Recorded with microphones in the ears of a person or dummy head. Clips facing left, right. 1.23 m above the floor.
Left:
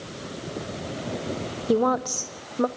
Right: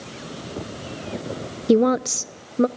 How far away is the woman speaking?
About 0.6 m.